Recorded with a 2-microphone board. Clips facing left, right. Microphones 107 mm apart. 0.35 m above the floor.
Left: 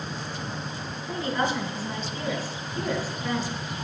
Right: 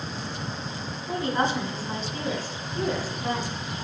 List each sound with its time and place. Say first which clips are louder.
1.1 s a woman speaking: right 2 dB; 30° right (ahead or behind), 1.1 m